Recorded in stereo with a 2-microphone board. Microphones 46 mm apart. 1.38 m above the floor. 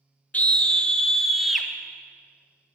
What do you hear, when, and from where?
0.3 s a scream: 35° left (ahead or behind), 0.8 m; by 1.7 s 5° right (ahead or behind), 1.3 m